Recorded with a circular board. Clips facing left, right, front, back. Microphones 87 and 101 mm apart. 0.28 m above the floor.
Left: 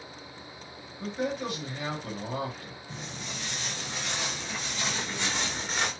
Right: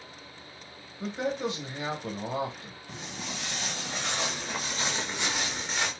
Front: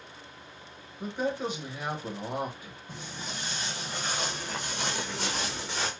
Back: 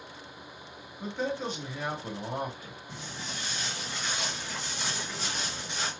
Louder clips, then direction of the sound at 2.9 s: Right 2 dB, front 1 dB; 80° right.